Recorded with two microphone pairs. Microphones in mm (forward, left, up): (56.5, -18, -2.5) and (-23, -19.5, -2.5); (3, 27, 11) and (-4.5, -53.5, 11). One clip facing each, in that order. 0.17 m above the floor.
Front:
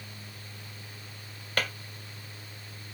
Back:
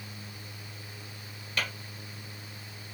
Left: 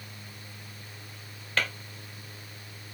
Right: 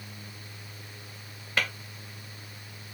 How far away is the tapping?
About 1.7 m.